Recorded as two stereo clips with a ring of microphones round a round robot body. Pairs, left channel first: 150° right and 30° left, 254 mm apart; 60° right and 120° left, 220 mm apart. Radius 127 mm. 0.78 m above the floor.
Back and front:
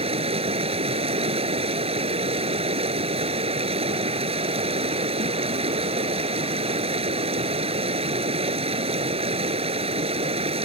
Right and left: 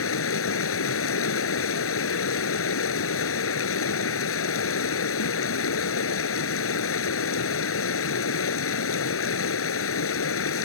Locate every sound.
0.0 s running water: 40° right